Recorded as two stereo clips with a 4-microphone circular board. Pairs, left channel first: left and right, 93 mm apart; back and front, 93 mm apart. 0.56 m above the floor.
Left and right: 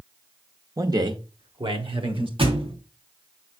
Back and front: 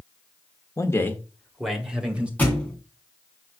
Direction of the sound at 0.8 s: 135° right.